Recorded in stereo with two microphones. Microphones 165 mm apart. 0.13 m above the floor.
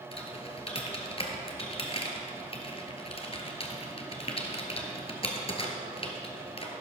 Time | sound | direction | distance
0.1 | typing on a keyboard | 35° left (ahead or behind) | 1.6 m